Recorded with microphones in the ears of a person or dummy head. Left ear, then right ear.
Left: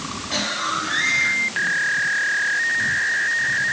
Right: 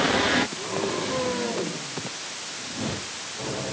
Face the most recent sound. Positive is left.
No sound to turn to.